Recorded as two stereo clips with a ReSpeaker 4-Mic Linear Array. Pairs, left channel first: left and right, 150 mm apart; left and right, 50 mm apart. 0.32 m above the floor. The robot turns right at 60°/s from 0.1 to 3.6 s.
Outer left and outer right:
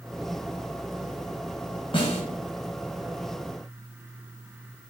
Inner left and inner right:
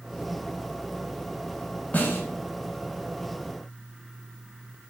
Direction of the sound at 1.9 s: 35° left (ahead or behind).